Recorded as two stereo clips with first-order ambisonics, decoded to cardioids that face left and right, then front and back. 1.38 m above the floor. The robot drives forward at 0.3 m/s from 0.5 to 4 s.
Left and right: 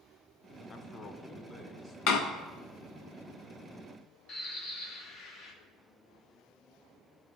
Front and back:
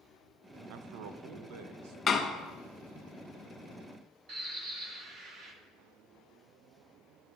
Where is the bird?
140° left, 1.0 m.